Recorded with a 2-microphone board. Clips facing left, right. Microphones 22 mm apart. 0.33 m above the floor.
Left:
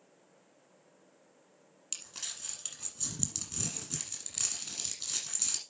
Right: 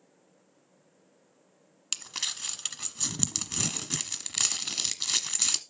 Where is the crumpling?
45° right (ahead or behind), 1.3 m.